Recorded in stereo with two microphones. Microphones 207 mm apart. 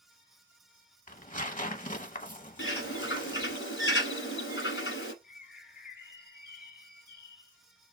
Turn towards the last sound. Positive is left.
turn(degrees=50)  # may be behind; listen again after turning